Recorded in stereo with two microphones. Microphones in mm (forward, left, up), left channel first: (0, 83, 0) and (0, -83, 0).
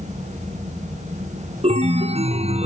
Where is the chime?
40° right (ahead or behind), 0.6 m.